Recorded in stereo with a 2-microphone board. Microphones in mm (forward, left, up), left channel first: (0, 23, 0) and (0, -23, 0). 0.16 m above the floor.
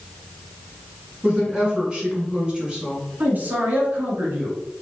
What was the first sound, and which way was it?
A woman speaking, 20° right (ahead or behind).